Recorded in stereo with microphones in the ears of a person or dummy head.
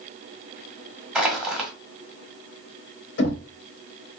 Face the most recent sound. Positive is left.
turn(degrees=65)  # may be behind; listen again after turning